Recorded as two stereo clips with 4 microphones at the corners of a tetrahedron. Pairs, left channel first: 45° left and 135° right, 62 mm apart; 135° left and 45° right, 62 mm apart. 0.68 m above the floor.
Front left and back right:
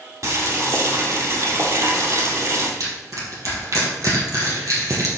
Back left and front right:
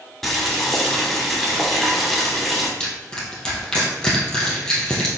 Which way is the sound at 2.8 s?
150° right.